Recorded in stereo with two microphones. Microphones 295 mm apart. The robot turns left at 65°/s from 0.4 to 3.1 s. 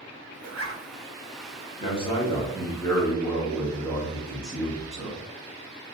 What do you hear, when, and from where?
0.4 s a zipper: 55° right (ahead or behind), 0.6 m; by 0.8 s 40° right (ahead or behind), 0.6 m
1.8 s a man speaking: 20° left (ahead or behind), 1.0 m; by 5.2 s 5° left (ahead or behind), 1.0 m